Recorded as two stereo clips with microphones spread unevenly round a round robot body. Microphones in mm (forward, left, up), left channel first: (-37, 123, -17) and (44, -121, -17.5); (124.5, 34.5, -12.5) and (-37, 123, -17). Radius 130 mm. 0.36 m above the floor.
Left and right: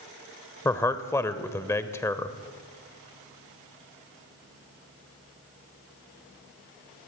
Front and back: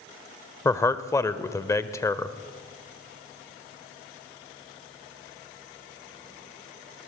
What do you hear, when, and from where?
0.7 s a man speaking: 35° left, 0.9 m